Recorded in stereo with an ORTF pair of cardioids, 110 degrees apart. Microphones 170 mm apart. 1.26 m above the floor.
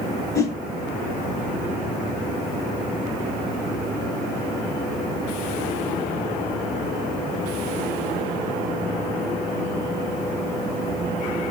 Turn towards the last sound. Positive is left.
turn(degrees=20)